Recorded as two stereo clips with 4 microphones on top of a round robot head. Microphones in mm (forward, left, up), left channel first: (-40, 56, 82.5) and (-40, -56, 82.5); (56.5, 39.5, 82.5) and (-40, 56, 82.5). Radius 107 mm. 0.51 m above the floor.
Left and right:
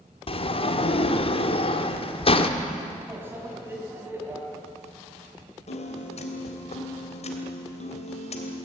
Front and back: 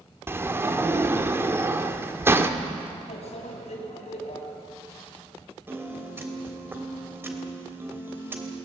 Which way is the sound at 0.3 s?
110° left.